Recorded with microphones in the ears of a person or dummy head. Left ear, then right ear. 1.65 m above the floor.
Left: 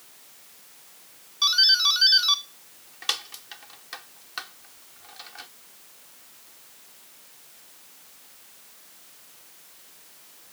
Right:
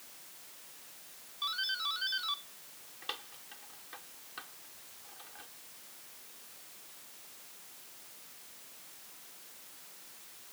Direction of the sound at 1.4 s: 50° left (ahead or behind).